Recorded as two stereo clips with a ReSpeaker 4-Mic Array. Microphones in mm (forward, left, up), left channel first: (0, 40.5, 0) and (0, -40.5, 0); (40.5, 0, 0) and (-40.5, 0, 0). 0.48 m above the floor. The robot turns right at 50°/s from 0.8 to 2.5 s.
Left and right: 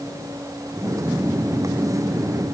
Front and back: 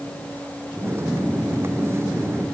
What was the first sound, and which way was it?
Only background noise.